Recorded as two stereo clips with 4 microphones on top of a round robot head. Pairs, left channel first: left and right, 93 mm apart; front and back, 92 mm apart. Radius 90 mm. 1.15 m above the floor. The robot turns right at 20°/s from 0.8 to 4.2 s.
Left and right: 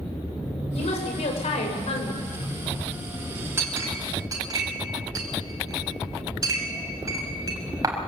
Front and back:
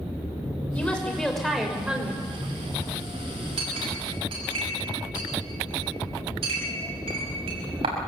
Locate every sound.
0.7 s a woman speaking: 75° left, 6 m; by 2.3 s 105° left, 6 m
3.6 s a clink: 155° right, 5.5 m; by 8.0 s 140° right, 5.5 m